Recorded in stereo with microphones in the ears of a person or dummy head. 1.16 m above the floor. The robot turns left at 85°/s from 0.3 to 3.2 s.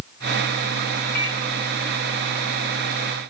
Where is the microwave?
55° left (ahead or behind), 8 m; by 1.4 s 35° left (ahead or behind), 8 m.